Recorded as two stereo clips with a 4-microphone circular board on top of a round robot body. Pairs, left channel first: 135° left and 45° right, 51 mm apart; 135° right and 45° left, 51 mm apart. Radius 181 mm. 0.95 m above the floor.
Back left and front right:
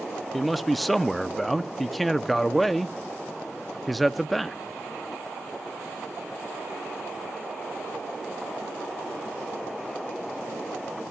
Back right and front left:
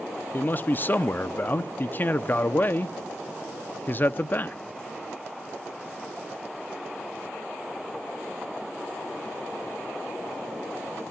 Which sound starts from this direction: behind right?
A man speaking, at 0.3 s.